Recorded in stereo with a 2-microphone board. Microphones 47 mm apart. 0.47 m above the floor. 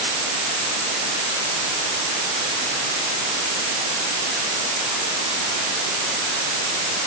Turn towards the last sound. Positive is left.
No sound to turn to.